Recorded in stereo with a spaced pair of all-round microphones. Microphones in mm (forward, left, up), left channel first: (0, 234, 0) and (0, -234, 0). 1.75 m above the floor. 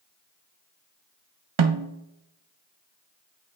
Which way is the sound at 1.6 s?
80° right.